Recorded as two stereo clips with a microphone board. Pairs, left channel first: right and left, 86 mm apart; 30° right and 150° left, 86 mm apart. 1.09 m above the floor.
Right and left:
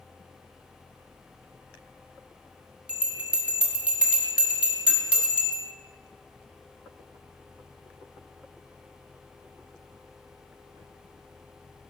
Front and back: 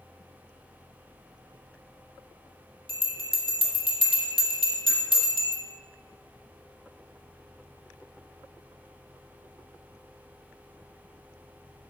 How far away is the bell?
About 1.6 m.